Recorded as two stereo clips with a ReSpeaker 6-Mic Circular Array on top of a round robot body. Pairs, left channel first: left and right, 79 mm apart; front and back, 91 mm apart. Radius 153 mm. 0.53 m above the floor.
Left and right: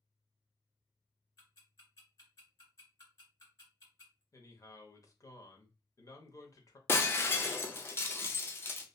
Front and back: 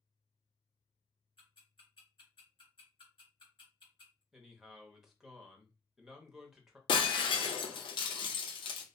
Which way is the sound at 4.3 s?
100° left.